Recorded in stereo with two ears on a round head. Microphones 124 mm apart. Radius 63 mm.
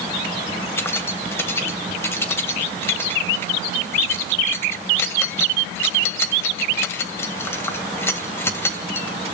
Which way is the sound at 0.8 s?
20° left (ahead or behind).